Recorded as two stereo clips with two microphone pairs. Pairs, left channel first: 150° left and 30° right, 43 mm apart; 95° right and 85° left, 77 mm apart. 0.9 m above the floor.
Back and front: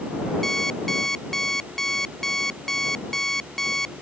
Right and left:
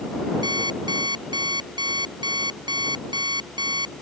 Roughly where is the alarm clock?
Left.